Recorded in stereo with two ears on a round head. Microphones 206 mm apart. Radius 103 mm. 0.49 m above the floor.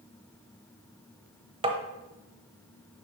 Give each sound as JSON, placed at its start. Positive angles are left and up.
{"t": 1.6, "sound": "tapping", "side_deg": -25, "distance_m": 1.0}